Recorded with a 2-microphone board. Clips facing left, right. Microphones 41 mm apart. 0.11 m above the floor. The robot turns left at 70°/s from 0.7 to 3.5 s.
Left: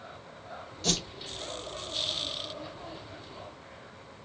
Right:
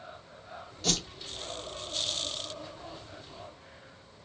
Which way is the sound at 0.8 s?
5° right (ahead or behind).